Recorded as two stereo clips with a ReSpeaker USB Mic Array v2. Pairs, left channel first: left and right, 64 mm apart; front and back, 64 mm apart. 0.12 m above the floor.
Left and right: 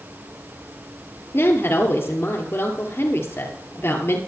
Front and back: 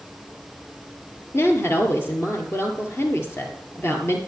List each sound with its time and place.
1.3 s a woman speaking: 45° left, 2.5 m